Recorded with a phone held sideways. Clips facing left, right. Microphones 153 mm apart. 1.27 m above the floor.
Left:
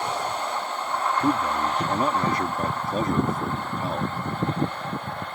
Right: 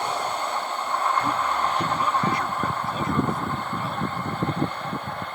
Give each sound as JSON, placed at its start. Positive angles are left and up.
{"t": 1.2, "sound": "a man speaking", "side_deg": 40}